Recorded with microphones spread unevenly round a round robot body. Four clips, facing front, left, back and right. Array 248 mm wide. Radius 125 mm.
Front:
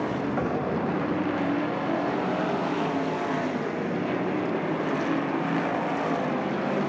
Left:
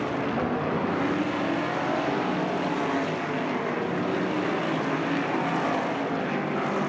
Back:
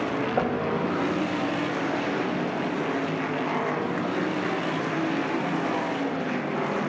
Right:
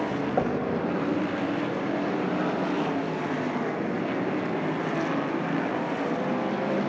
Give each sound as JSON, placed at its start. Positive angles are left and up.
{"t": 0.4, "sound": "knocking", "azimuth_deg": -125, "distance_m": 5.5}